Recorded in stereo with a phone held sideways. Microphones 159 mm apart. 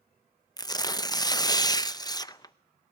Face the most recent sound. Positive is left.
turn(degrees=25)  # may be behind; listen again after turning